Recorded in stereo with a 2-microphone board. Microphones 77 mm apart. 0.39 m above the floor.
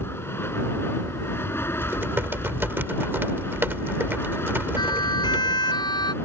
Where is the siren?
65° left (ahead or behind).